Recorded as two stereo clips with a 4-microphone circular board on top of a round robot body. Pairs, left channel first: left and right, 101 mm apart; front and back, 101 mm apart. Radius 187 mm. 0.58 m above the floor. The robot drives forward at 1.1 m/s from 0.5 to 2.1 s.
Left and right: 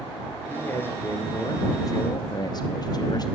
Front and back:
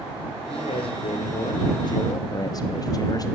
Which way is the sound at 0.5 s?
20° left.